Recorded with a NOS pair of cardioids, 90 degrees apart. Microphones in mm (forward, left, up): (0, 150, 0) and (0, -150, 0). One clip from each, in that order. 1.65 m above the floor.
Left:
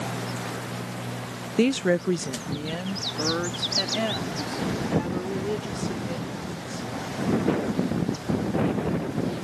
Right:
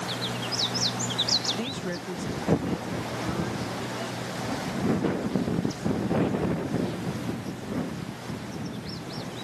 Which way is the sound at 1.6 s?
60° left.